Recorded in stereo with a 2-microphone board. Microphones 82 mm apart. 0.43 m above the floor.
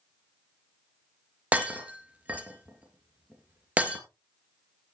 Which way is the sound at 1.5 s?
20° right (ahead or behind).